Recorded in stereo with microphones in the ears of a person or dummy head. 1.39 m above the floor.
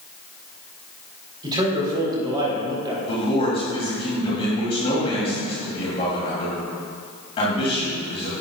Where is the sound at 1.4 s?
25° right (ahead or behind), 3 m.